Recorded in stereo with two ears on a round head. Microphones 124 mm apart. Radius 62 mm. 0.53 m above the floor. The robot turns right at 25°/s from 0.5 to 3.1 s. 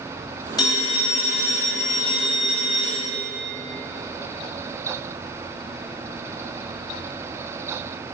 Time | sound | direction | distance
0.6 | a phone ringing | 30° left | 2.5 m